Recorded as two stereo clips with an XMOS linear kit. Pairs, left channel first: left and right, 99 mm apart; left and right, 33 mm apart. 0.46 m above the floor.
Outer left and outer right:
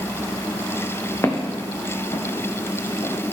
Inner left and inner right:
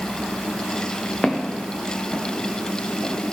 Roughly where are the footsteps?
Left.